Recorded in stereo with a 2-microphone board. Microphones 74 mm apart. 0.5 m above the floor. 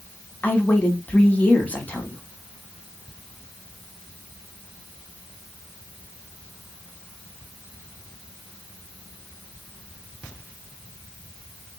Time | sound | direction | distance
0.4 | a woman speaking | 20° left (ahead or behind) | 1.0 m